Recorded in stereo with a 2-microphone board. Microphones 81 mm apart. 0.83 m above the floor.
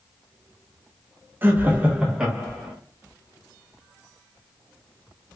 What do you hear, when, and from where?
1.4 s laughter: 25° right (ahead or behind), 0.8 m; by 2.7 s 5° right (ahead or behind), 1.3 m